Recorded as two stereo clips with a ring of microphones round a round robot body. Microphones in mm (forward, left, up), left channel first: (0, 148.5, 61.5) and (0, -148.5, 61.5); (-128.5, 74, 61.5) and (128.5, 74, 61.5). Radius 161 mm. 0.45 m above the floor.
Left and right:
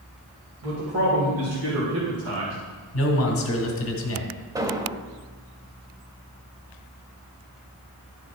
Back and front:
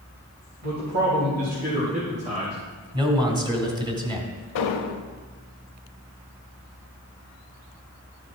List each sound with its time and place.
0.6 s a man speaking: 55° right, 2.5 m; by 2.6 s 65° right, 1.6 m
2.9 s a man speaking: 70° left, 1.8 m
4.5 s an explosion: 170° right, 0.6 m